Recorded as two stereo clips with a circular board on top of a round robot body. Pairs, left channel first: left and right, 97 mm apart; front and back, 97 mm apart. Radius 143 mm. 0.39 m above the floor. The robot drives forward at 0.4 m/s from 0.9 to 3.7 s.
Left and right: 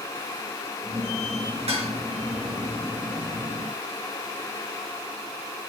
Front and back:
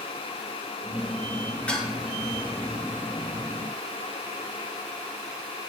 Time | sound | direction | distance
1.7 | dishes clattering | 75° right | 4.5 m